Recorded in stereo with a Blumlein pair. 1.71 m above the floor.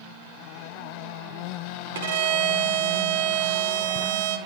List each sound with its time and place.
1.9 s a violin: 55° right, 0.8 m